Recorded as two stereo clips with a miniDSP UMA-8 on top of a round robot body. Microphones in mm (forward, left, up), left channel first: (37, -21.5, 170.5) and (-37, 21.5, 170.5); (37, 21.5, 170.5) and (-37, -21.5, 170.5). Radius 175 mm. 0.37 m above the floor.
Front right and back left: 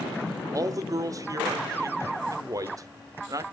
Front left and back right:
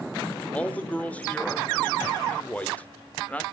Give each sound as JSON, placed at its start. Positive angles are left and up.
{"t": 0.5, "sound": "a man speaking", "azimuth_deg": 105, "distance_m": 1.4}